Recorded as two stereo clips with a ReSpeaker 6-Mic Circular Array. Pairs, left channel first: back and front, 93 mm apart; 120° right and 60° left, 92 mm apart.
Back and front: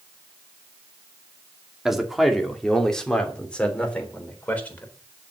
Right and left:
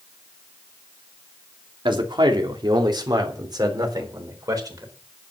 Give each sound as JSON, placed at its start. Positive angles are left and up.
{"t": 1.9, "sound": "a man speaking", "azimuth_deg": 85, "distance_m": 2.5}